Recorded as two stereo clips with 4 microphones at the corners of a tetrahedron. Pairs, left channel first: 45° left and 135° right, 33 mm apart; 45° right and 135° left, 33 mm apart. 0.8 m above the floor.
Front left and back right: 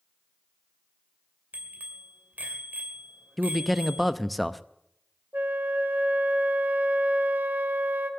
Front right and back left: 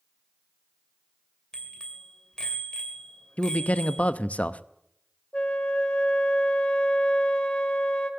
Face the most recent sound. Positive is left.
turn(degrees=-105)